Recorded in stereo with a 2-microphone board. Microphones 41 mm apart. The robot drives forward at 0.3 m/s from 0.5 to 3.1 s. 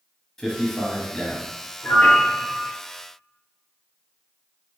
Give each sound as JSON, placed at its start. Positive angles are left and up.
{"t": 0.4, "sound": "a man speaking", "side_deg": 10, "distance_m": 1.0}
{"t": 1.8, "sound": "a piano", "side_deg": 45, "distance_m": 1.0}